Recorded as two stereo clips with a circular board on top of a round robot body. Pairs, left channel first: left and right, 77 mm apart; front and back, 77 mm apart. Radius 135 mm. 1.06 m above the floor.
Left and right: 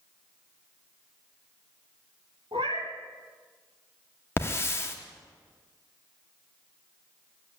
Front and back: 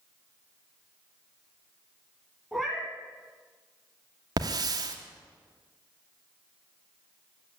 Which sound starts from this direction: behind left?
A hiss, at 4.4 s.